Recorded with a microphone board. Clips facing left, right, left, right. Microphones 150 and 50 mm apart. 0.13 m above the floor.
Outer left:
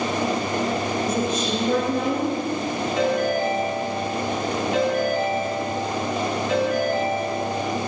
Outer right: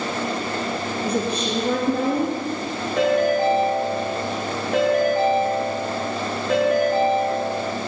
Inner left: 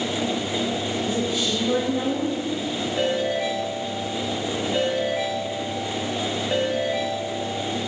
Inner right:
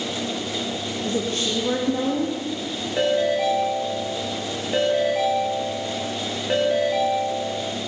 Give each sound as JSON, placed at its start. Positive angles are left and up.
{"t": 1.1, "sound": "a woman speaking", "side_deg": -65, "distance_m": 8.0}
{"t": 3.0, "sound": "a ringtone", "side_deg": -45, "distance_m": 8.5}